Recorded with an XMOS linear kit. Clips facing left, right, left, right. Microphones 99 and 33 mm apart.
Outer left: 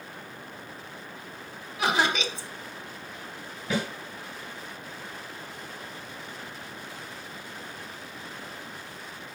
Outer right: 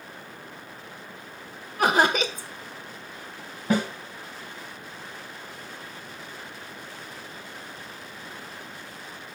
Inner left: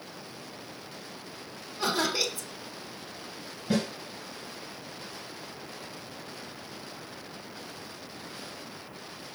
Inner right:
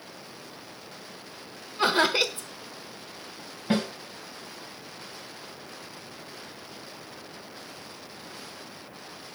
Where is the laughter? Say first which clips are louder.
Outer right 4 dB, inner right 5 dB; 45° right (ahead or behind), 1.3 m.